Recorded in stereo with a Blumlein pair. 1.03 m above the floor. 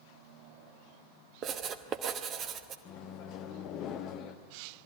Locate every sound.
1.4 s writing: 30° right, 1.1 m
2.9 s a microwave: 35° left, 1.0 m